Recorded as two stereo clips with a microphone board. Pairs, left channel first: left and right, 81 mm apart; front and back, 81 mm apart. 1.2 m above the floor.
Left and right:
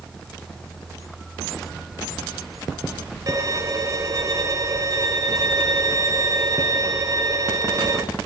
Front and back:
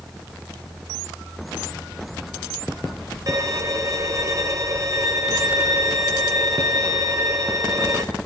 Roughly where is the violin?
Behind right.